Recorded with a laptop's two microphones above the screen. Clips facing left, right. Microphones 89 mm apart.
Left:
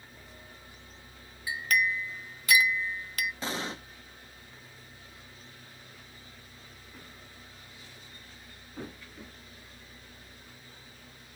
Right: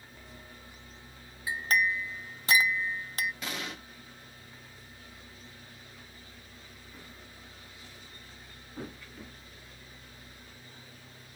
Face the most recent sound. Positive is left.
turn(degrees=30)  # may be behind; listen again after turning